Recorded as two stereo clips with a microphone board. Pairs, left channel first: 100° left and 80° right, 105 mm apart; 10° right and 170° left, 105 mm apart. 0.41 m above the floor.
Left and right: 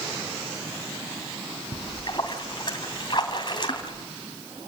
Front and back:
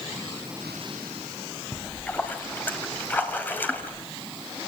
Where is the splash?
60° left, 2.5 m.